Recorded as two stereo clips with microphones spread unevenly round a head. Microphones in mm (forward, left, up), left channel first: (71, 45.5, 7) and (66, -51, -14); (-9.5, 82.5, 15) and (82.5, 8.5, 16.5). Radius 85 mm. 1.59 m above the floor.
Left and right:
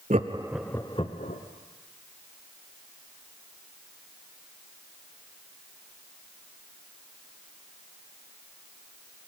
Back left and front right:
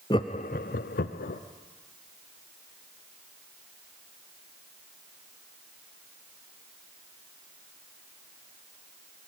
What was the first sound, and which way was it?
Laughter, 150° right.